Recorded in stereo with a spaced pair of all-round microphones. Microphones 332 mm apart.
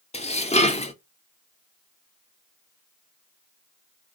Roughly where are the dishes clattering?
Centre.